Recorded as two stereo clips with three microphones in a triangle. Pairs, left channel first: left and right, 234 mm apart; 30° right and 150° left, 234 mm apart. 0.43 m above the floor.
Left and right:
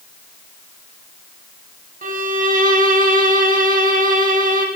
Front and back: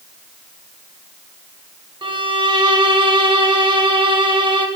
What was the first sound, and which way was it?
A violin, 140° right.